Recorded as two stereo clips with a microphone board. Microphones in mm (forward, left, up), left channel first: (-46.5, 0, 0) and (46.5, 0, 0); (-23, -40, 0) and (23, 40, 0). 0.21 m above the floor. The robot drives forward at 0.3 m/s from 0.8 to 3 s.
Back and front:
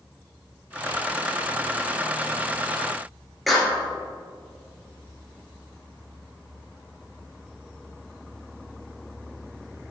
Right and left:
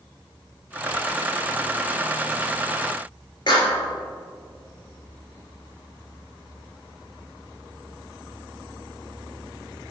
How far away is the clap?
About 2.5 m.